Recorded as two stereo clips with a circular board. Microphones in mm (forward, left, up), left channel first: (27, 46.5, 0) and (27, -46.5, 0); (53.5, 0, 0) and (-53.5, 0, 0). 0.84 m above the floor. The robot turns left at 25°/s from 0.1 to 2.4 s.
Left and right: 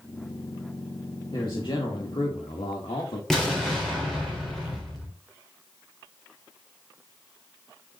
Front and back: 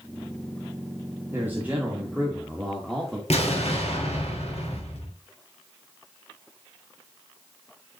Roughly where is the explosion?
Ahead.